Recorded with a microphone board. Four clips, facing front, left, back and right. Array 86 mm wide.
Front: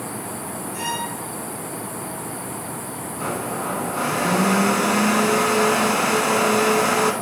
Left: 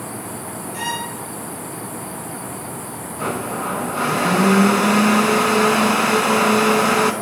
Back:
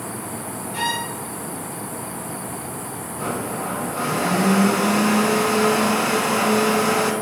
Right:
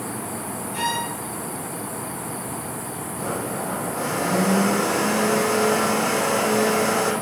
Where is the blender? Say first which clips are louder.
Left 4 dB, even; 80° left, 0.8 m.